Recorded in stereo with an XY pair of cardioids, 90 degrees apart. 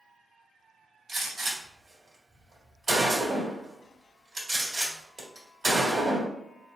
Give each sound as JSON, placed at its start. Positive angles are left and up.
{"t": 1.1, "sound": "a gunshot", "azimuth_deg": -45, "distance_m": 1.6}